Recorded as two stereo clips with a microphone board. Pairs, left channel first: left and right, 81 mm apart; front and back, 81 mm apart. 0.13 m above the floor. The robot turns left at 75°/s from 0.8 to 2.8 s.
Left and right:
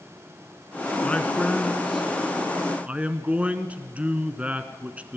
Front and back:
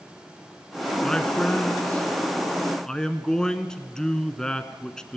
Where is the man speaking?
70° left, 1.1 m; by 5.2 s 65° right, 1.1 m.